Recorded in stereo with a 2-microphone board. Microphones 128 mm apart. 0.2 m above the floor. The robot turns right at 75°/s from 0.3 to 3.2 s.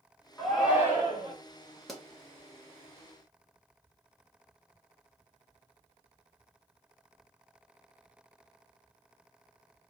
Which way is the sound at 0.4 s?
170° left.